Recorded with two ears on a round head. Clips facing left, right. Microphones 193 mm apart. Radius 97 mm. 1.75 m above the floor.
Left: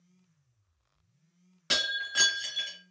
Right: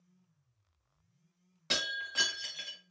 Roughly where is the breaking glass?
Centre.